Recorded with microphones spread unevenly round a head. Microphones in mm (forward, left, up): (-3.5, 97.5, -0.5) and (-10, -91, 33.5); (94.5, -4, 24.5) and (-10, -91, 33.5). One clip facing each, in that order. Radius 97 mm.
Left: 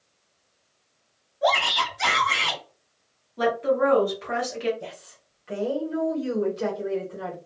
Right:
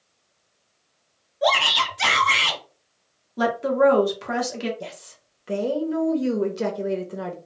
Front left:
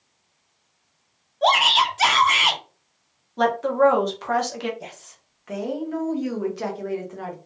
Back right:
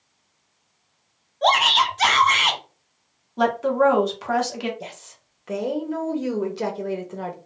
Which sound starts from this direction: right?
A woman speaking, at 4.8 s.